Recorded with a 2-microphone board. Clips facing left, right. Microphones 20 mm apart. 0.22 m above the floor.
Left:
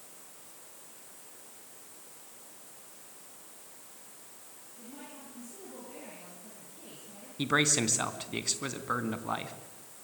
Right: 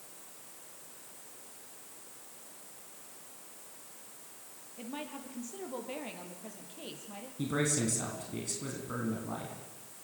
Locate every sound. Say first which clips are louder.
4.8 s a woman speaking: right 7 dB; 55° right (ahead or behind), 6 m; by 7.3 s 45° right (ahead or behind), 7 m
7.4 s a man speaking: left 5 dB; 50° left (ahead or behind), 2.5 m